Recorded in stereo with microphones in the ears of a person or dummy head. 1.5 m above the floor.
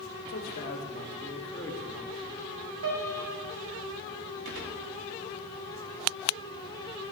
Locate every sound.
0.3 s a man speaking: 45° left (ahead or behind), 4.5 m; by 2.5 s 5° right (ahead or behind), 3 m
2.8 s a piano: 85° right, 5.5 m
4.5 s a gunshot: 65° right (ahead or behind), 3.5 m